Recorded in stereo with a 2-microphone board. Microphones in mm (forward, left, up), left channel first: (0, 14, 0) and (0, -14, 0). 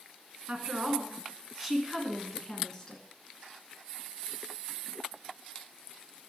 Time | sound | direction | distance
0.5 | a woman speaking | 40° right (ahead or behind) | 2 m